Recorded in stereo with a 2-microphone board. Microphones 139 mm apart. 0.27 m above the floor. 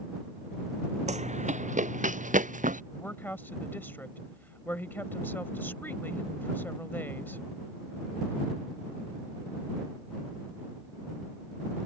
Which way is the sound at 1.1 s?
55° right (ahead or behind).